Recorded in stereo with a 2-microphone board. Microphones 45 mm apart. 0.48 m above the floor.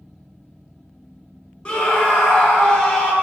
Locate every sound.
1.6 s a scream: 20° left (ahead or behind), 3.5 m